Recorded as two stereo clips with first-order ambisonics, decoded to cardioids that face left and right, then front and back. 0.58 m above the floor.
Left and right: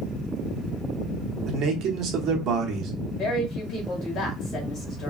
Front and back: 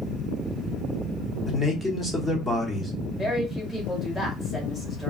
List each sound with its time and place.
1.5 s a man speaking: 90° right, 0.8 m
3.2 s a woman speaking: 90° left, 1.3 m